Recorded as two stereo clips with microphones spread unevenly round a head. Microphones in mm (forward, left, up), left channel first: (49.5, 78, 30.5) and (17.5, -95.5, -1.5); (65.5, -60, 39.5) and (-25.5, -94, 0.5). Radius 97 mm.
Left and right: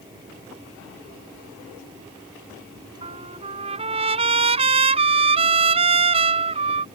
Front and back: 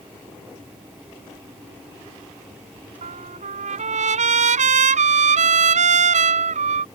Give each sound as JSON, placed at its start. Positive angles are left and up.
{"t": 3.0, "sound": "a trumpet", "azimuth_deg": -165}